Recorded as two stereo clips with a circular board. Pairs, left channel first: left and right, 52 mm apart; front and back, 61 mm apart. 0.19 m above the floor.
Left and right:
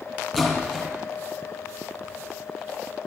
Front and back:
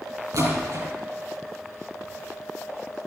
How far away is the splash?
About 5 m.